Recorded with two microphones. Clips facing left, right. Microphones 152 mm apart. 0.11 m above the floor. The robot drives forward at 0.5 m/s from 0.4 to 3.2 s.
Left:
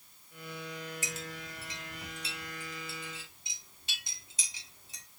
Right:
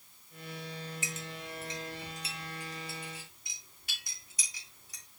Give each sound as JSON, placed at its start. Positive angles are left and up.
{"t": 1.0, "sound": "a clink", "side_deg": 40, "distance_m": 1.6}